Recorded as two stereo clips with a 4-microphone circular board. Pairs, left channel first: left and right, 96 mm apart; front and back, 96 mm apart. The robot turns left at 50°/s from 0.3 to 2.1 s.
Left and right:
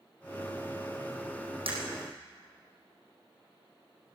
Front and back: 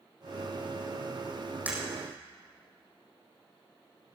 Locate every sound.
1.7 s breaking glass: 105° right, 5 m; by 1.8 s 110° right, 5 m